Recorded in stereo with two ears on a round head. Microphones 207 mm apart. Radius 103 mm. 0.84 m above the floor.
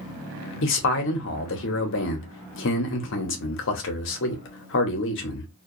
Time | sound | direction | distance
0.6 | a man speaking | 55° left (ahead or behind) | 0.9 m